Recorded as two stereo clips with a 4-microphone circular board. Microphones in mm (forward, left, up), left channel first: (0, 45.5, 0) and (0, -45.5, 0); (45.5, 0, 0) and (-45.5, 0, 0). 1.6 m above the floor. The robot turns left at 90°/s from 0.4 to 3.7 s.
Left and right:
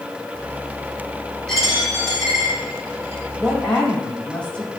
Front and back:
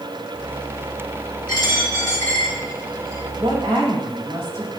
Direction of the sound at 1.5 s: 10° left.